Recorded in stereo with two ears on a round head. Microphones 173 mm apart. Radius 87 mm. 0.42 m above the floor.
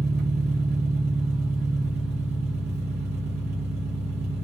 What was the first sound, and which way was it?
An engine running, 55° right (ahead or behind).